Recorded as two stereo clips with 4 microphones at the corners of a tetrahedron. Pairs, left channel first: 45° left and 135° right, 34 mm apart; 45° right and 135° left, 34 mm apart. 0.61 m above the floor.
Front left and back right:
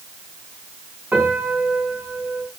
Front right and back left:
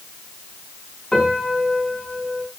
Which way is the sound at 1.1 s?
110° right.